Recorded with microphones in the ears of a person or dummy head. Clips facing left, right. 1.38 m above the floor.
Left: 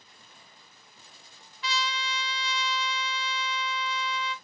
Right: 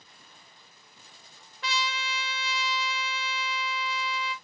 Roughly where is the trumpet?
Right.